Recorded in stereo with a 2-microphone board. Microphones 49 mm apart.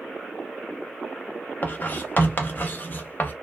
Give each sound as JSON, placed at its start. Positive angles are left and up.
{"t": 1.6, "sound": "writing", "side_deg": 40, "distance_m": 0.5}